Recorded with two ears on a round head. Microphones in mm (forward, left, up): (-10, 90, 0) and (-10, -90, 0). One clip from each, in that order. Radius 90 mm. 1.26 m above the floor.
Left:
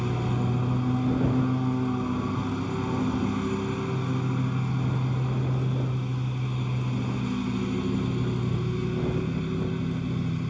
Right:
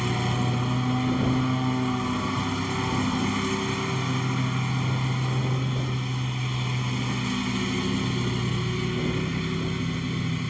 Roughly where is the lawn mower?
Right.